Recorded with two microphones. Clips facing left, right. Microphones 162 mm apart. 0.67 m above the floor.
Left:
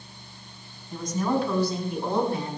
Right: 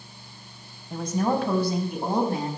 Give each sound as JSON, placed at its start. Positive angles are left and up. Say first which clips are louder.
{"t": 0.9, "sound": "a woman speaking", "louder": "right 1 dB", "side_deg": -65, "distance_m": 4.0}